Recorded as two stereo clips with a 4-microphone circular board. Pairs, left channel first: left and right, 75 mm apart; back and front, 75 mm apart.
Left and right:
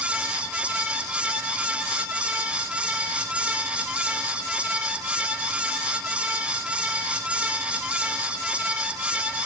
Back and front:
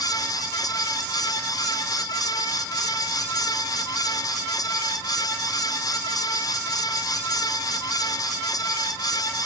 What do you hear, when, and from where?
Only background noise.